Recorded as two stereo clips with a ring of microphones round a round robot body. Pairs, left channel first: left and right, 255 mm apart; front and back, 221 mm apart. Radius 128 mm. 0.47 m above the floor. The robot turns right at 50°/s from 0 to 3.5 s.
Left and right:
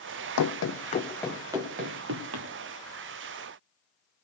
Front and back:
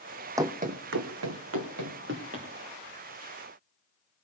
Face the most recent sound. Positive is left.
turn(degrees=-60)